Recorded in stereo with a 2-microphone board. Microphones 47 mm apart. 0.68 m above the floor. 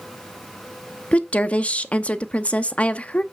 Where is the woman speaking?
30° left (ahead or behind), 0.7 m.